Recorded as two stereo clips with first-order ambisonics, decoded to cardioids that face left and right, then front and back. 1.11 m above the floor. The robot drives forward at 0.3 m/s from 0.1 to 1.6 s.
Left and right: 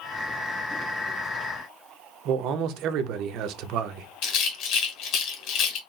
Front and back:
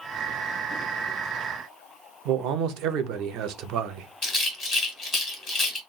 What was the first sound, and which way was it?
A man speaking, 135° right.